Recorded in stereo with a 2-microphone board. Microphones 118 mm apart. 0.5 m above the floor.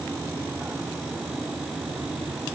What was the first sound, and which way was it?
Only background noise.